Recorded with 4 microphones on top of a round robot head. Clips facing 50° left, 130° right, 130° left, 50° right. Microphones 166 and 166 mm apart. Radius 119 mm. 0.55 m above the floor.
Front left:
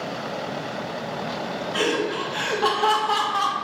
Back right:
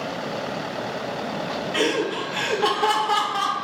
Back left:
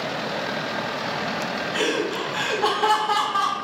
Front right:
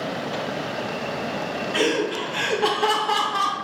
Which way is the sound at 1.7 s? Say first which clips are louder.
Back right 1 dB, front right 2 dB; 85° right.